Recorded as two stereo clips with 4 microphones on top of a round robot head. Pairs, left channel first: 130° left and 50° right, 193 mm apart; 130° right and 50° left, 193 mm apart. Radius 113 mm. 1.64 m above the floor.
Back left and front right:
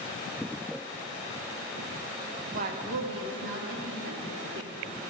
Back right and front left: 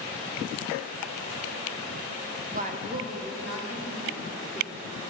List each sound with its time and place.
2.5 s a woman speaking: straight ahead, 0.6 m; by 5.0 s 35° right, 2 m